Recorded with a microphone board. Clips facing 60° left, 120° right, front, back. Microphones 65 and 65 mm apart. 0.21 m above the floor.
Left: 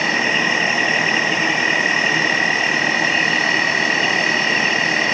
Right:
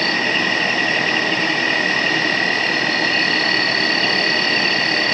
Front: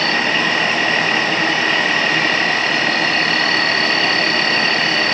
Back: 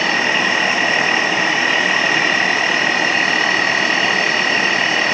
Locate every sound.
0.0 s an insect: 120° left, 2 m